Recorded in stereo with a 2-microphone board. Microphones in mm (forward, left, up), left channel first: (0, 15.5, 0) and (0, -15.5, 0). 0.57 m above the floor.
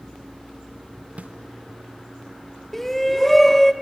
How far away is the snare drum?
About 0.6 m.